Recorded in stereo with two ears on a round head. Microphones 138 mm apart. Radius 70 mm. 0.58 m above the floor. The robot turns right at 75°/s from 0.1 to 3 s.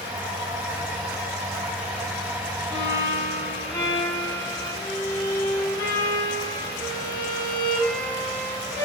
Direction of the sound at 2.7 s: 5° left (ahead or behind).